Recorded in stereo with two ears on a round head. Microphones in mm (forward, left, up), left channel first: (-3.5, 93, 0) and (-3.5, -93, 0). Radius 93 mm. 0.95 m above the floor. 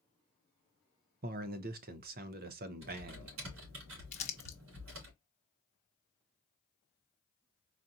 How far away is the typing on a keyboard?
About 2.5 m.